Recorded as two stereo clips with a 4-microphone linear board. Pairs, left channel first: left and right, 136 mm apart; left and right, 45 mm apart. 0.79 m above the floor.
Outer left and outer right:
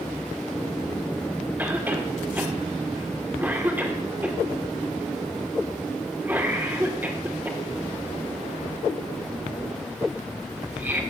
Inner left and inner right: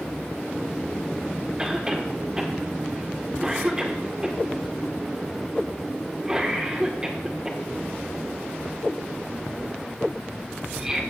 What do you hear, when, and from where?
1.6 s a cough: 15° right (ahead or behind), 1.8 m